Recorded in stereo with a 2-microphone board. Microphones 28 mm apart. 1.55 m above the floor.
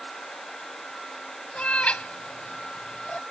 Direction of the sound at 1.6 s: 60° left (ahead or behind).